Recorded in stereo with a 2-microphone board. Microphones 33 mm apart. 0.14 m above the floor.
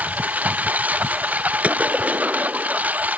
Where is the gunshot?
45° right (ahead or behind).